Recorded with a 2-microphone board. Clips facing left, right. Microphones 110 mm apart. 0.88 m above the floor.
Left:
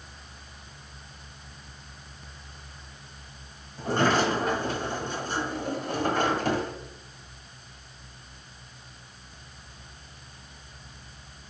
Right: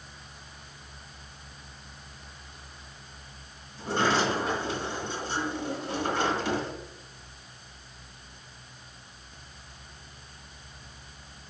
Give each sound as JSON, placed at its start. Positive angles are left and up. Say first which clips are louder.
{"t": 3.8, "sound": "a sliding door", "louder": "left 2 dB", "side_deg": 50, "distance_m": 1.4}